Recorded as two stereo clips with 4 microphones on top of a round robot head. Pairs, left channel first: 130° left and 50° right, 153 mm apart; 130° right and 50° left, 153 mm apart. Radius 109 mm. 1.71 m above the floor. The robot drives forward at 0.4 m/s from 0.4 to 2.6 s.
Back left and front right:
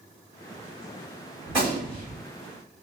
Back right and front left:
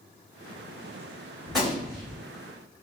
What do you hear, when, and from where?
1.5 s a gunshot: 35° right, 1.6 m; by 2.2 s 55° right, 1.5 m